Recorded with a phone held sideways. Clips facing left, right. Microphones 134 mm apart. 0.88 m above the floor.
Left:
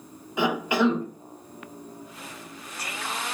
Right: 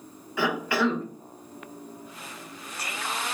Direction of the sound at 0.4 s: 20° left (ahead or behind).